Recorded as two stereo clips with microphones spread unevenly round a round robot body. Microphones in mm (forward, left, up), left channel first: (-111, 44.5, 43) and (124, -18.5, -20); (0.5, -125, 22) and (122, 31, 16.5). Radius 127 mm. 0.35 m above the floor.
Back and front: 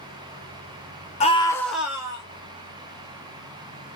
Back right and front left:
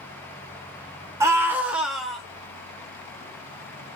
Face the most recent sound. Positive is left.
turn(degrees=-40)